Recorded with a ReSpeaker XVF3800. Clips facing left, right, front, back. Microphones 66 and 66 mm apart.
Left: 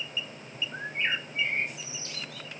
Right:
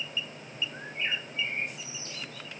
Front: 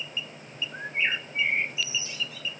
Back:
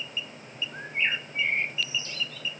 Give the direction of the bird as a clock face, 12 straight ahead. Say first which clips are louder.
Left 5 dB, front 1 dB; 9 o'clock.